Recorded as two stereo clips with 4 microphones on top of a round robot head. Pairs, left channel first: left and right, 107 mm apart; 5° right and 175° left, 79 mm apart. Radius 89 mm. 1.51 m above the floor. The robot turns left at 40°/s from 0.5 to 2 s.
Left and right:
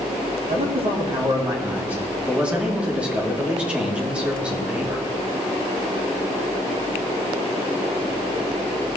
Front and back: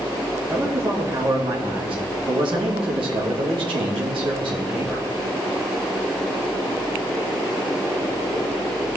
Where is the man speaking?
110° right, 3 m; by 5.1 s 170° right, 3 m.